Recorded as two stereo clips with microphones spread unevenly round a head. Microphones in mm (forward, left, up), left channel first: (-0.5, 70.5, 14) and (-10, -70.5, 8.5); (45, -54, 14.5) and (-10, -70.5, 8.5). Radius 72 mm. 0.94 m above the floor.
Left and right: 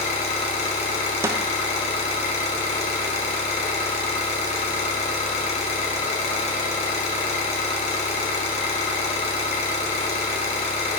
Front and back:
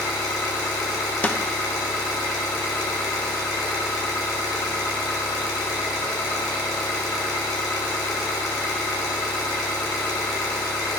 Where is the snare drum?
40° right, 0.6 m.